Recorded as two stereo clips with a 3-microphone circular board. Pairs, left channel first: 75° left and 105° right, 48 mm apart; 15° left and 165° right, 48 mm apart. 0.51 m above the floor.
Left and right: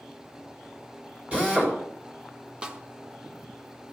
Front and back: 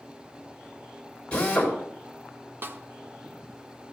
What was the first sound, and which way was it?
A drill, 45° right.